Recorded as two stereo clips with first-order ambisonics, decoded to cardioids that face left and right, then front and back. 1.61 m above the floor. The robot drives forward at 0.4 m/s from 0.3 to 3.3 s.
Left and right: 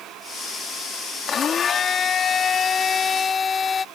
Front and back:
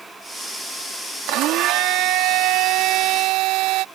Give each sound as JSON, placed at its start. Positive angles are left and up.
{"t": 1.3, "sound": "a blender", "azimuth_deg": 150}